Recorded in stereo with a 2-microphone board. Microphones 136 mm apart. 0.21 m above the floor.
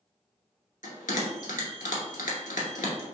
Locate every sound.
0.8 s a bell: 75° left (ahead or behind), 0.9 m